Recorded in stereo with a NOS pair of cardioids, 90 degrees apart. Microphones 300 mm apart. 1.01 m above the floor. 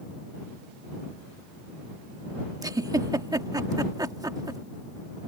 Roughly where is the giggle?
Ahead.